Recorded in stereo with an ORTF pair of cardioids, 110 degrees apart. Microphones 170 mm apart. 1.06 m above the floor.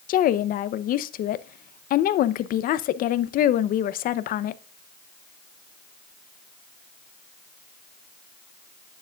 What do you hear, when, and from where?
0.1 s a woman speaking: 60° left, 0.7 m